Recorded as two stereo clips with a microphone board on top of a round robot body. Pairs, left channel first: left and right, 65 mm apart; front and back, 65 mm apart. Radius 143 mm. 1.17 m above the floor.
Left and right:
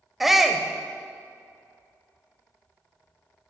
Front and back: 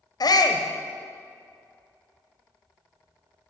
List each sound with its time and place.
0.2 s a shout: straight ahead, 0.9 m